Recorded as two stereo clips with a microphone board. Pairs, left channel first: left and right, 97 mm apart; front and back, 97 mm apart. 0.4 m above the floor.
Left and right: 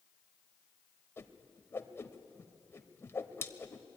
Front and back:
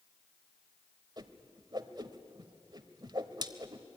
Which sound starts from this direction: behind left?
A whoosh, at 1.2 s.